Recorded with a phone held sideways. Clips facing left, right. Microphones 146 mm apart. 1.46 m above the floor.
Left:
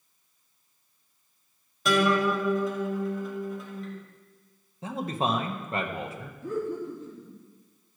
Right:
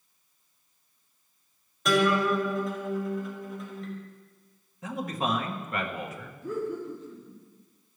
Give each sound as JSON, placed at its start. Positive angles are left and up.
{"t": 1.9, "sound": "a guitar", "side_deg": 0, "distance_m": 3.0}
{"t": 4.8, "sound": "a man speaking", "side_deg": 25, "distance_m": 1.4}
{"t": 6.4, "sound": "laughter", "side_deg": 50, "distance_m": 3.5}